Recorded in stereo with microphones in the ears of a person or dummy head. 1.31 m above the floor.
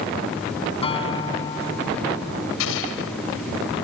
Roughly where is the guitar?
Left.